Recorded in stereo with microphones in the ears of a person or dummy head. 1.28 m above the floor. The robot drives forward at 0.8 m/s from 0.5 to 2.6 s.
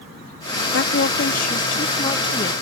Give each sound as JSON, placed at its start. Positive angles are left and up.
{"t": 0.7, "sound": "a woman speaking", "side_deg": 60}